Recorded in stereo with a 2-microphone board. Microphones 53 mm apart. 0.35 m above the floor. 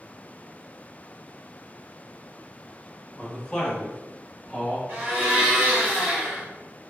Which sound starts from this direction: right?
A blender, at 4.9 s.